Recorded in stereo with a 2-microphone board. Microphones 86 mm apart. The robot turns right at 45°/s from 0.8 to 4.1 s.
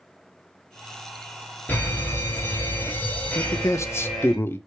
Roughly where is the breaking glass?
I don't hear breaking glass.